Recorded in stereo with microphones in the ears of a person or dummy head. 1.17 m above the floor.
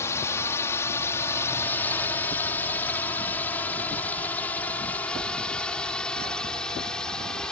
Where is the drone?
10° left (ahead or behind); by 7.5 s centre (ahead or behind).